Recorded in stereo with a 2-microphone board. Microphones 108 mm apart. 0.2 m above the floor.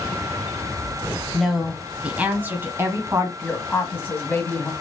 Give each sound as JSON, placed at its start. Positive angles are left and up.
{"t": 1.3, "sound": "a woman speaking", "side_deg": 0, "distance_m": 1.1}
{"t": 3.4, "sound": "a woman speaking", "side_deg": 20, "distance_m": 1.1}